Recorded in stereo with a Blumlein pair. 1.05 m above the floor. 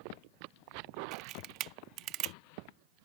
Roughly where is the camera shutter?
Ahead right.